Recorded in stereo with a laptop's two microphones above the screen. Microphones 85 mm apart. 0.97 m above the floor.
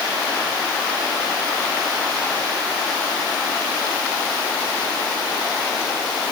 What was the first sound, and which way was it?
Only background noise.